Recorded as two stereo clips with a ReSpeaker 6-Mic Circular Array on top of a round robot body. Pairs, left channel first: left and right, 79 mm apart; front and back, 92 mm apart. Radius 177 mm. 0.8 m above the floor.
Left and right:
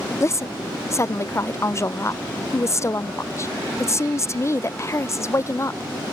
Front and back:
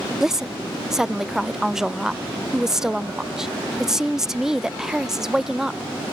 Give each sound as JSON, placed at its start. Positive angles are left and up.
{"t": 0.2, "sound": "a woman speaking", "azimuth_deg": 100}